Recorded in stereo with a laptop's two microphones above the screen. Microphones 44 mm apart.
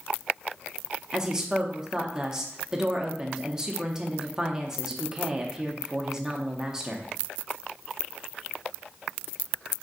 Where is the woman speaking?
10° right (ahead or behind), 0.5 m.